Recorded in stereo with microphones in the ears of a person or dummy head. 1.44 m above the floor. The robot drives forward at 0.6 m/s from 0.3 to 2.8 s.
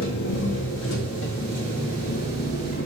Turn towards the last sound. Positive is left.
turn(degrees=50)  # may be behind; listen again after turning